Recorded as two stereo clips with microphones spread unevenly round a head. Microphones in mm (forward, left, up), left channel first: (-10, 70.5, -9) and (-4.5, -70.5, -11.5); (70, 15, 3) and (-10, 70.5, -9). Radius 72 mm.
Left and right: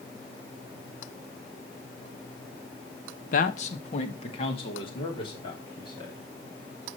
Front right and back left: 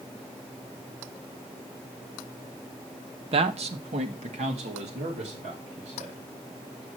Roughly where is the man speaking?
Behind left.